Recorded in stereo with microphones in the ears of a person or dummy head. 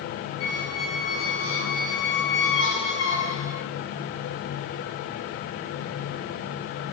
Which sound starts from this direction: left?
A squeak, at 0.4 s.